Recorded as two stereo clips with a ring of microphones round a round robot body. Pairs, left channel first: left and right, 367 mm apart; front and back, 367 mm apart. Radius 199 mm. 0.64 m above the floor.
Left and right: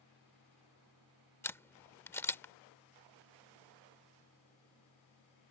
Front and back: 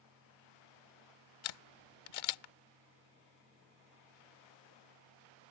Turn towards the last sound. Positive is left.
turn(degrees=5)